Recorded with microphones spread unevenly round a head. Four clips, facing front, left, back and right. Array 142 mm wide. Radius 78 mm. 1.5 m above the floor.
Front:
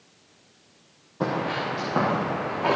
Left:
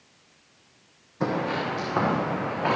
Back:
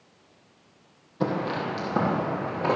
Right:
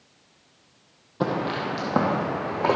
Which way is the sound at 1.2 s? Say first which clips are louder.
Right 1 dB, front 1 dB; 80° right.